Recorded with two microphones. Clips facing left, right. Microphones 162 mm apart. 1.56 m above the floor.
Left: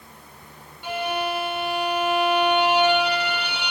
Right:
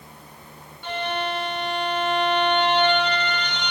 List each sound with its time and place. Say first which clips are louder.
0.8 s a violin: left 1 dB; 10° left (ahead or behind)